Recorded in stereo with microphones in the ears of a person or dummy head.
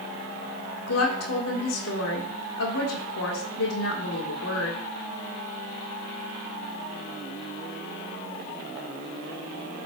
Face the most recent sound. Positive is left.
turn(degrees=75)  # may be behind; listen again after turning